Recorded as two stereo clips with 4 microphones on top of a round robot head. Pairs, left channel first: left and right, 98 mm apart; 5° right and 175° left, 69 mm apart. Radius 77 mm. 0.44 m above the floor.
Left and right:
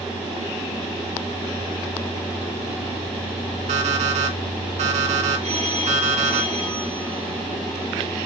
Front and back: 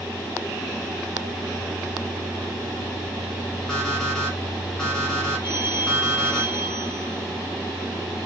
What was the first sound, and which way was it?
An alarm clock, 85° right.